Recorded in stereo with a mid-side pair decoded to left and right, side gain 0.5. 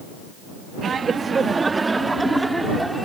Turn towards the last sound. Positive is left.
turn(degrees=-10)